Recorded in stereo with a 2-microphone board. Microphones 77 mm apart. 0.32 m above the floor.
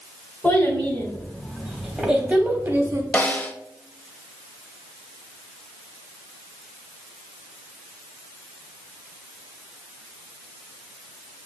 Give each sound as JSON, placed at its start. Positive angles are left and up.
{"t": 0.4, "sound": "a child speaking", "side_deg": 25, "distance_m": 1.4}
{"t": 3.1, "sound": "a snare drum", "side_deg": 25, "distance_m": 0.5}